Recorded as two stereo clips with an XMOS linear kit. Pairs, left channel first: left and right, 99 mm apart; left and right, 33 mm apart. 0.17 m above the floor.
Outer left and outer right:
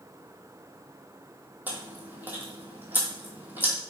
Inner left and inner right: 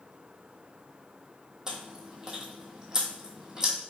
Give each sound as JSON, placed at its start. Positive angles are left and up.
{"t": 1.7, "sound": "chewing", "side_deg": -20, "distance_m": 1.2}